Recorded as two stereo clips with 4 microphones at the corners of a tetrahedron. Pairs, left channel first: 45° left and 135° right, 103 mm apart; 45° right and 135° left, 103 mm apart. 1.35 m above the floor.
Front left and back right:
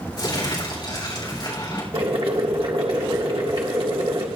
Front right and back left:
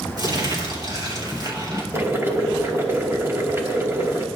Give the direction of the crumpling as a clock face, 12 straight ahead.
9 o'clock.